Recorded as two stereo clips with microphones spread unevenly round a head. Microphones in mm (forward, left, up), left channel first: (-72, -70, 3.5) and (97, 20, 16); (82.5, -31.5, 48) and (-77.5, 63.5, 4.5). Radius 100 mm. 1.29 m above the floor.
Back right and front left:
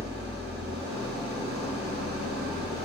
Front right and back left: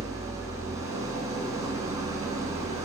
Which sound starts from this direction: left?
An engine running, at 0.0 s.